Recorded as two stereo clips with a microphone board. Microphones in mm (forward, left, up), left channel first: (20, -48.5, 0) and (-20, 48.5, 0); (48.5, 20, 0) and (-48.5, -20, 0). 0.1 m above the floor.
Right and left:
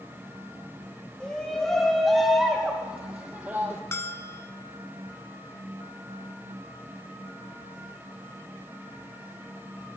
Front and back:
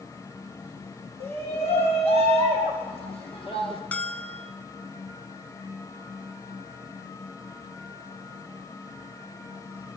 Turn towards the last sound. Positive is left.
turn(degrees=-40)